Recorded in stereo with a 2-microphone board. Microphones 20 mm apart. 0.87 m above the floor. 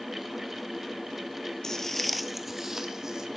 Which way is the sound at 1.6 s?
25° left (ahead or behind).